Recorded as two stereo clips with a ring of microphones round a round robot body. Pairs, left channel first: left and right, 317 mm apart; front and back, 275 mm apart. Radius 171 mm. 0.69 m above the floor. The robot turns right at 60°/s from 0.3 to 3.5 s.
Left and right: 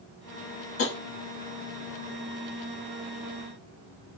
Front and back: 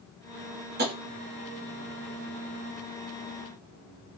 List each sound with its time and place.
0.8 s tapping: 130° left, 1.2 m; by 0.9 s 140° left, 1.2 m